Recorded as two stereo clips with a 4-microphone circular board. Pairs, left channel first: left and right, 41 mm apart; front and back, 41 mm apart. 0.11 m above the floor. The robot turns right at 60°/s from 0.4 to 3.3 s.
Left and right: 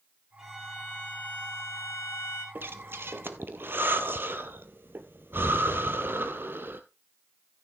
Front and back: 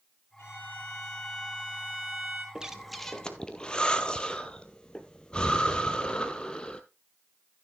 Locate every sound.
0.4 s a violin: straight ahead, 4.5 m; by 2.5 s 125° left, 4.5 m
2.5 s breathing: 110° right, 0.9 m; by 6.8 s 65° right, 0.9 m